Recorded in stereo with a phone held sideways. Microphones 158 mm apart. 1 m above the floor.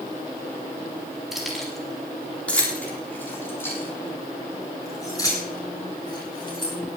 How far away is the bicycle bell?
No bicycle bell in this recording.